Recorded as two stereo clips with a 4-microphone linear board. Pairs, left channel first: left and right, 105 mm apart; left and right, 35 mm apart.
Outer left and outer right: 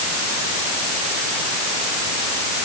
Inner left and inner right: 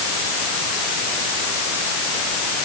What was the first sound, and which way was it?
Only background noise.